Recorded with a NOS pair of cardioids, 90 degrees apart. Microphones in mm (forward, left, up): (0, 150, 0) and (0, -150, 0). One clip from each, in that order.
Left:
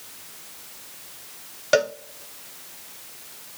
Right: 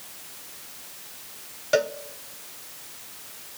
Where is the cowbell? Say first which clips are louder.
Left 3 dB; 30° left, 0.7 m.